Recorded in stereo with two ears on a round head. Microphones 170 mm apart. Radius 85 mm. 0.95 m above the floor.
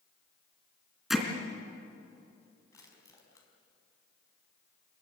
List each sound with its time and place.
1.1 s hammering: centre (ahead or behind), 3 m
2.7 s crushing: 20° left (ahead or behind), 5 m